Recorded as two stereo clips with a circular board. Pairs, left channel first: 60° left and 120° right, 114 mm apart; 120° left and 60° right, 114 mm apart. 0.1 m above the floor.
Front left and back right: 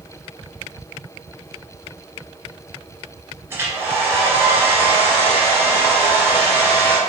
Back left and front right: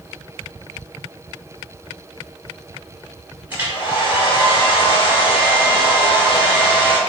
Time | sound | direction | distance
3.5 | a hair dryer | 100° right | 1.5 m